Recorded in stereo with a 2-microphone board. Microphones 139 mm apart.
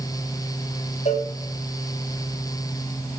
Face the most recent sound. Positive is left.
turn(degrees=55)  # may be behind; listen again after turning